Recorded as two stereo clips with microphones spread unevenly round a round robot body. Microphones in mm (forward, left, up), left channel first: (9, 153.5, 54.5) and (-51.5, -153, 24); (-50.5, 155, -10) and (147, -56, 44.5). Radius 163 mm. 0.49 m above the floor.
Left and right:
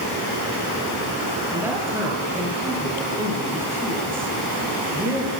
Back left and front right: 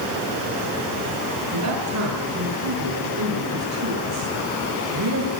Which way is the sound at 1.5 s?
20° right.